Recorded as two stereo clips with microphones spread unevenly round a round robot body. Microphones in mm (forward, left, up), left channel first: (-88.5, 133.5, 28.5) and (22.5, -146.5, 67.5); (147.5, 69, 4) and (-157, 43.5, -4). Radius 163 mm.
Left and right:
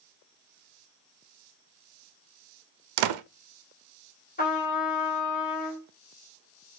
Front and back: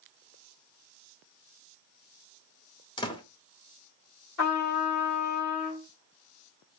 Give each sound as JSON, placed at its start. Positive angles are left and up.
{"t": 3.0, "sound": "a door slam", "azimuth_deg": -75, "distance_m": 0.5}
{"t": 4.4, "sound": "a trumpet", "azimuth_deg": 45, "distance_m": 2.0}